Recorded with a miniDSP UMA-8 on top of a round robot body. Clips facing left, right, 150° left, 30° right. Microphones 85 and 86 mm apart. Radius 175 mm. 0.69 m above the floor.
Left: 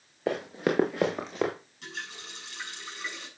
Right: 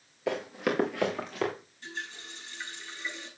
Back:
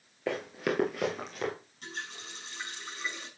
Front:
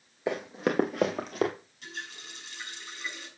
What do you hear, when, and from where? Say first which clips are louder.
0.3 s running footsteps: left 2 dB, front 2 dB; 45° left, 0.7 m; by 1.5 s 15° left, 1.1 m
1.8 s a running tap: even, even; 95° left, 7 m